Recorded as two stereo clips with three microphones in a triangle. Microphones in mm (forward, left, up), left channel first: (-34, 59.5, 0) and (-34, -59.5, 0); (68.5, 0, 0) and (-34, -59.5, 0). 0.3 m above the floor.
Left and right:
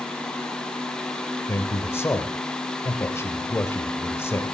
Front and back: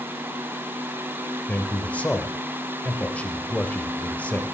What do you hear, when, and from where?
1.5 s a man speaking: 85° left, 0.9 m